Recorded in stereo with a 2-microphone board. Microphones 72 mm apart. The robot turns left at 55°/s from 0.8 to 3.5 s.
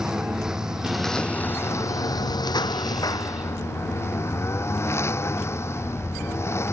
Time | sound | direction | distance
0.0 | a lawn mower | 170° right | ?